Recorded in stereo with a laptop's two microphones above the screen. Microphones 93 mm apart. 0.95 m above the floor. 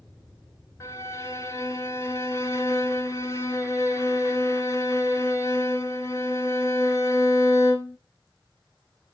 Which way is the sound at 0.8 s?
30° left (ahead or behind).